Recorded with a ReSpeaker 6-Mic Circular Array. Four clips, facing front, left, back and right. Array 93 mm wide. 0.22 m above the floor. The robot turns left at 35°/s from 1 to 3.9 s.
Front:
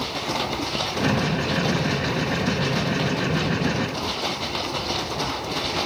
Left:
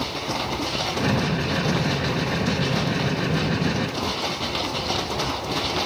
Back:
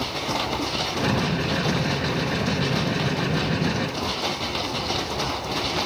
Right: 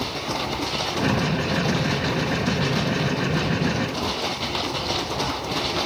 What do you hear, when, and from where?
Only background noise.